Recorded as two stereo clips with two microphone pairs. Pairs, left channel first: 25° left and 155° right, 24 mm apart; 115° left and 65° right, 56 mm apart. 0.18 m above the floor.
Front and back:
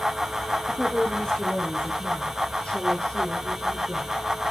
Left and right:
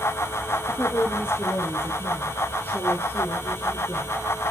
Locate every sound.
0.7 s a woman speaking: 85° left, 3 m; by 4.2 s 60° left, 4.5 m